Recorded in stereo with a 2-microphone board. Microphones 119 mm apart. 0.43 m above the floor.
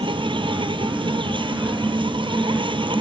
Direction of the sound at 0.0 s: 45° right (ahead or behind).